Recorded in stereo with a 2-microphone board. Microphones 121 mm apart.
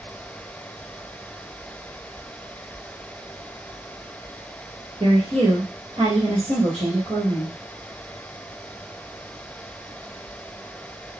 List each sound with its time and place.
5.0 s a woman speaking: 45° right (ahead or behind), 1.7 m